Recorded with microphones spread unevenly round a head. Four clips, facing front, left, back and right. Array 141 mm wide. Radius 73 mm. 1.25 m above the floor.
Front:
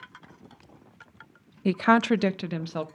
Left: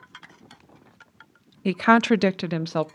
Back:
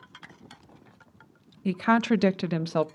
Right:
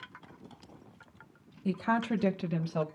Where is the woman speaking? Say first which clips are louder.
Left 11 dB, front 2 dB; 65° left, 0.5 m; by 2.9 s 130° left, 0.7 m.